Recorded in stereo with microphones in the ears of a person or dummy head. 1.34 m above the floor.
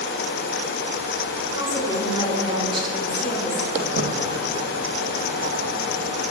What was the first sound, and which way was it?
A woman speaking, 15° right (ahead or behind).